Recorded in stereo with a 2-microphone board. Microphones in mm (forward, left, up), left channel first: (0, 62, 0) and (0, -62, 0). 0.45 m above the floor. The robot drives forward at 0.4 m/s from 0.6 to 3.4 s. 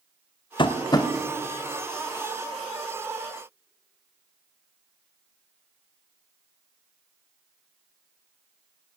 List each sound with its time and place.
0.6 s tapping: 40° left (ahead or behind), 0.5 m; by 1.1 s 30° left (ahead or behind), 0.7 m